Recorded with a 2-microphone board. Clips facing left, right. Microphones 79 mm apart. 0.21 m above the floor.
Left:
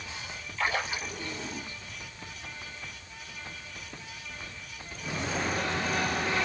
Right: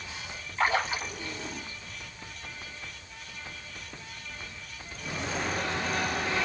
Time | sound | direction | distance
0.6 | a splash | 35° right (ahead or behind) | 1.3 m